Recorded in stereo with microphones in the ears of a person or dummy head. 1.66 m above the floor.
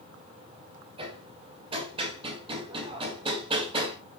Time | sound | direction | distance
1.0 | hammering | 30° right (ahead or behind) | 2 m